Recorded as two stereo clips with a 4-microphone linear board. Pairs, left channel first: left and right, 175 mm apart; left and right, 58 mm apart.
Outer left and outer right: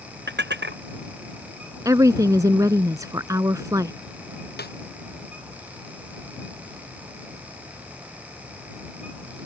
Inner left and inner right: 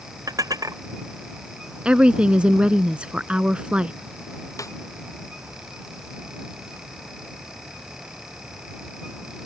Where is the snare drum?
65° left (ahead or behind).